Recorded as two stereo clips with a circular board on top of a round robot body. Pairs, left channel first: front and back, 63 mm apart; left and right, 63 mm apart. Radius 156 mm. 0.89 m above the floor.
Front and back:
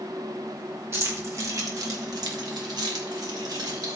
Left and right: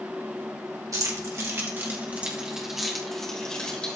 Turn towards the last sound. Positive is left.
turn(degrees=160)